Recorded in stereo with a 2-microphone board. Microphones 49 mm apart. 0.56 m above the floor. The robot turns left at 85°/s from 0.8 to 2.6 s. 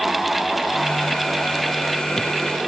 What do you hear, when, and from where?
Only background noise.